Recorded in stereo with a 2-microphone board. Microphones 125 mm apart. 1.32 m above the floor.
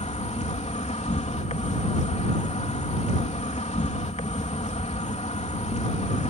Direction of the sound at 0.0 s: 65° left (ahead or behind).